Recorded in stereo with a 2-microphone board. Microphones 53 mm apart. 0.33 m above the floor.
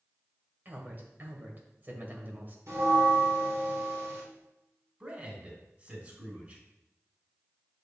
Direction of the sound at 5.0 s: 30° right (ahead or behind).